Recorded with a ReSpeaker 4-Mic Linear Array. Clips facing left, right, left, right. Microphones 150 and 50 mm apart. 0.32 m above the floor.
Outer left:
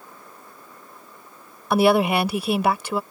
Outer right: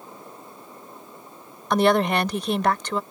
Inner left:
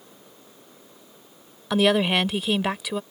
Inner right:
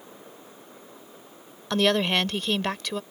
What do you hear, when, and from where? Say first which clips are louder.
1.7 s a woman speaking: outer left 2 dB, inner left 2 dB; 10° left (ahead or behind)